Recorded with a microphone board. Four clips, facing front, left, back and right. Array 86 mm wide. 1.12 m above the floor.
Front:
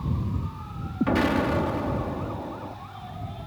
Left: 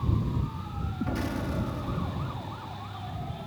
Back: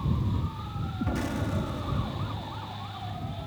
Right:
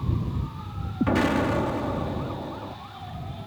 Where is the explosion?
45° right.